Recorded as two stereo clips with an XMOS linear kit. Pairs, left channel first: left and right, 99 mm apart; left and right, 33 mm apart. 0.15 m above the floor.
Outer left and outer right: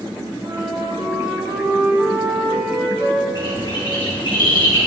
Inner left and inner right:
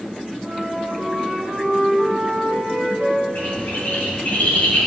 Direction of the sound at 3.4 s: 50° left (ahead or behind).